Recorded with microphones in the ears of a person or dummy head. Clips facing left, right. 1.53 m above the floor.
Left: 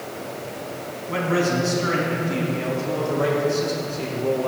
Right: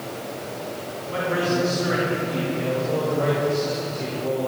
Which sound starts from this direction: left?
A man speaking, at 1.1 s.